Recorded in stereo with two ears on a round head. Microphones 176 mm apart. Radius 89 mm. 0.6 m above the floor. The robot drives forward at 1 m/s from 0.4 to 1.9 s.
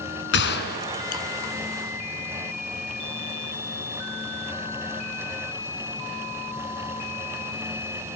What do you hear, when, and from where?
0.3 s a gunshot: 60° left (ahead or behind), 2 m; by 1.2 s 45° left (ahead or behind), 2.5 m